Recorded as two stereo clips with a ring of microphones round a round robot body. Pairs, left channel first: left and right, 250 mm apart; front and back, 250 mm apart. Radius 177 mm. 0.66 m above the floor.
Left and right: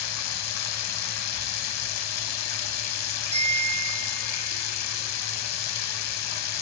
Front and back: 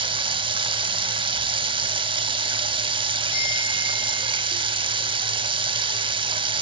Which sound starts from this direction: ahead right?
A bicycle bell, at 3.3 s.